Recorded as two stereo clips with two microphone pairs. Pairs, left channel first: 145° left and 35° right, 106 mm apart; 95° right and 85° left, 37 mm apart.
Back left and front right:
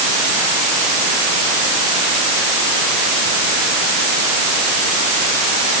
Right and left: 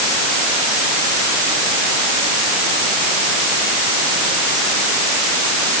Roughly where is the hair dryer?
No hair dryer in this recording.